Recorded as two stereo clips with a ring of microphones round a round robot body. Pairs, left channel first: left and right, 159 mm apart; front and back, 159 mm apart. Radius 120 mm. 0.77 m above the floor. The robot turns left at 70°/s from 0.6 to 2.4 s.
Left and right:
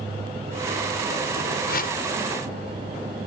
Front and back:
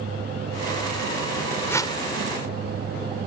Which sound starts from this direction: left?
A whoosh, at 1.7 s.